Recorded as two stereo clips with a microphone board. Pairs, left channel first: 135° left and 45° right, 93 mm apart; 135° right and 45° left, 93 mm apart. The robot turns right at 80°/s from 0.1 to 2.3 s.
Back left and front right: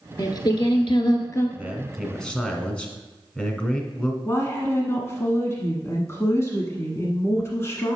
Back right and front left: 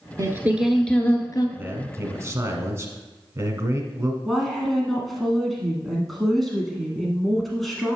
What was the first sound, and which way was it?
Singing, 90° left.